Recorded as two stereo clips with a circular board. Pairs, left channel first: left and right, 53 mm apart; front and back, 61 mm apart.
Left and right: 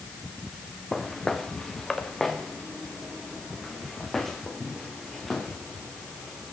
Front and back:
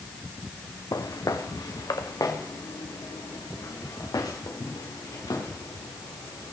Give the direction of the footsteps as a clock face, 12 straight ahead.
12 o'clock.